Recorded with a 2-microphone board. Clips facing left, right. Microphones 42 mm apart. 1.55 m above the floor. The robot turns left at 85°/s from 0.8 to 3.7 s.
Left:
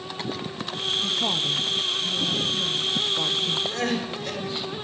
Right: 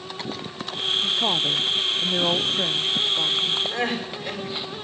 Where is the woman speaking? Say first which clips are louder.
Right 3 dB; 5° left, 0.9 m; by 3.6 s 145° left, 0.9 m.